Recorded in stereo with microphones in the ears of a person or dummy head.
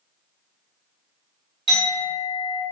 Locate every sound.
1.7 s a clink: 25° right (ahead or behind), 1.4 m